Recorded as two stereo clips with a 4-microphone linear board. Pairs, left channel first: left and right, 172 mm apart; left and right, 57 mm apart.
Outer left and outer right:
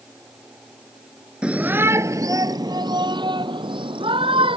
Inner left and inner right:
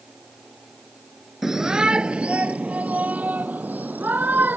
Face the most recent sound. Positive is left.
turn(degrees=-30)  # may be behind; listen again after turning